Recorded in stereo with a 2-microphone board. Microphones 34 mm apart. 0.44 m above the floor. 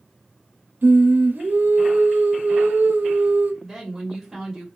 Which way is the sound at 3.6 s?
5° right (ahead or behind).